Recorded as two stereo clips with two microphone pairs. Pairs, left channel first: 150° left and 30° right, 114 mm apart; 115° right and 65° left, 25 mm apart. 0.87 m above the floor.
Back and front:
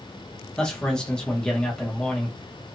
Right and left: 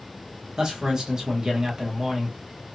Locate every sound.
0.6 s a man speaking: 70° left, 0.9 m